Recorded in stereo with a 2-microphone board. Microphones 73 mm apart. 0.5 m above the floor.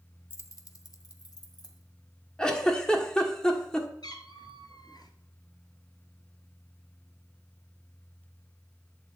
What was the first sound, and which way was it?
Keys jangling, 30° left (ahead or behind).